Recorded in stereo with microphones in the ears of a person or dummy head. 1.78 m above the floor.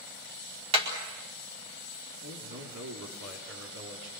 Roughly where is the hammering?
Right.